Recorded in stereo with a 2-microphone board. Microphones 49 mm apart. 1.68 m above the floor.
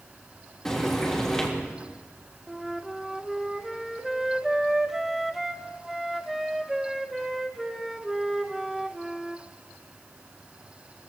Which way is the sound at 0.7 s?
10° left (ahead or behind).